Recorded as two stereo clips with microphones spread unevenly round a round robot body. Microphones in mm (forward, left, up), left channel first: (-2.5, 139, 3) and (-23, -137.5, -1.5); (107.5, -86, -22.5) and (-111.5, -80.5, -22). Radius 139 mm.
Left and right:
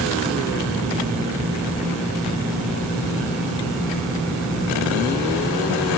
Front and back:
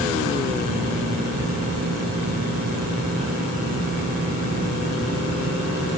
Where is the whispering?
No whispering in this recording.